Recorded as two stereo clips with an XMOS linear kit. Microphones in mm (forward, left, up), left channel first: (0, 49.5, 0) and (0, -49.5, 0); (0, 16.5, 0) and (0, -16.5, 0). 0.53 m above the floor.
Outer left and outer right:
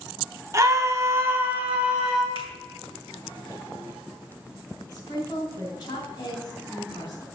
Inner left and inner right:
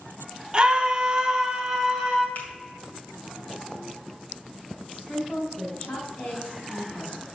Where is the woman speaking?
40° left (ahead or behind), 3 m.